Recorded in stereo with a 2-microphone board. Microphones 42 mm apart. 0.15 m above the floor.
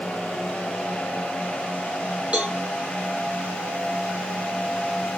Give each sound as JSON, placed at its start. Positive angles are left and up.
{"t": 2.3, "sound": "a cowbell", "side_deg": -30, "distance_m": 5.0}